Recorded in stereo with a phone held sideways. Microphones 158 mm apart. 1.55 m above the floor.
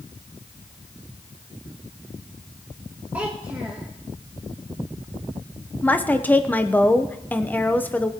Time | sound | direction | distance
3.1 | a child speaking | 10° right (ahead or behind) | 1.5 m
5.8 | a woman speaking | 10° left (ahead or behind) | 1.0 m